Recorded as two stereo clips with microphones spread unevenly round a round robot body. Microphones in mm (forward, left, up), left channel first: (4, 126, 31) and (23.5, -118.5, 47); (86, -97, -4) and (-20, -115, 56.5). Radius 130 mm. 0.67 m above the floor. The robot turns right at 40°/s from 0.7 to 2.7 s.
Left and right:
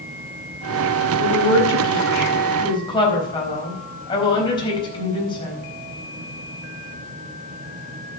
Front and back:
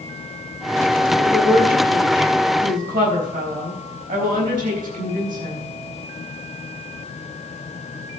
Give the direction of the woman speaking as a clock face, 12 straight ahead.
9 o'clock.